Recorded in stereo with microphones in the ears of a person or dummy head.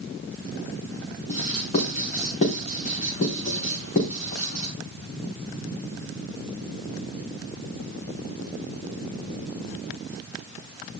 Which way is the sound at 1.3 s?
40° left (ahead or behind).